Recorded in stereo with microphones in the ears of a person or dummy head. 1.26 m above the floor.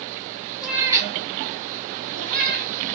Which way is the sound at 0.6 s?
5° right (ahead or behind).